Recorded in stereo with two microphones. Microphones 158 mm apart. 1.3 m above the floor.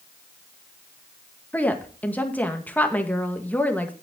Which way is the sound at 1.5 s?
10° left (ahead or behind).